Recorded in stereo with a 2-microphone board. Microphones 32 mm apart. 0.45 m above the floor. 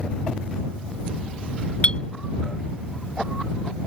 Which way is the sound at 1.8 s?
35° left (ahead or behind).